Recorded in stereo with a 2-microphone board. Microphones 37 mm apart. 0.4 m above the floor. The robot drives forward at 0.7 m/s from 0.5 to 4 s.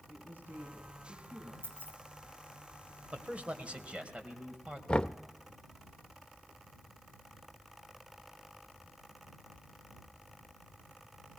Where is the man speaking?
40° right (ahead or behind), 2.0 m; by 4.8 s 35° right (ahead or behind), 2.5 m.